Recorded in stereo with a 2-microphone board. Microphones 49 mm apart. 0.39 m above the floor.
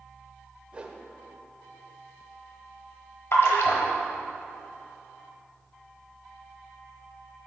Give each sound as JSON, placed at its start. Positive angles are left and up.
{"t": 0.7, "sound": "a whoosh", "side_deg": -25, "distance_m": 0.8}
{"t": 3.3, "sound": "a splash", "side_deg": 65, "distance_m": 1.2}